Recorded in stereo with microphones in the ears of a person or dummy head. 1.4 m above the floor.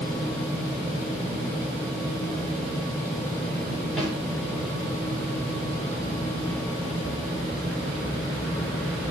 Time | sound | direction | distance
4.0 | a snare drum | centre (ahead or behind) | 5.5 m